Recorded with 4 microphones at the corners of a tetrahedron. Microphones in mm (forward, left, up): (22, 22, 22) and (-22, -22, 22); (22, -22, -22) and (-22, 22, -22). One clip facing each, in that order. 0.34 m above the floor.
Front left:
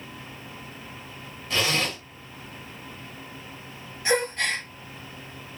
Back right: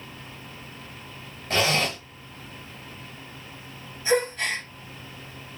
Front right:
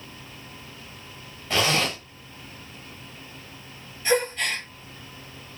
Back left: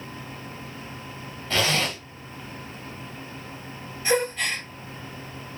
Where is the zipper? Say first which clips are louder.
Back right 2 dB, front right 1 dB; 115° right, 1.8 m.